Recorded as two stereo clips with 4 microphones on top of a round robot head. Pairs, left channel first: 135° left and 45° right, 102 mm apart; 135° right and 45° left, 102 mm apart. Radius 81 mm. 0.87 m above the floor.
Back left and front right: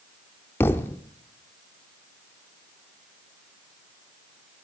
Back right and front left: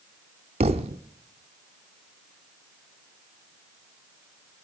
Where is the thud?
70° left, 0.6 m.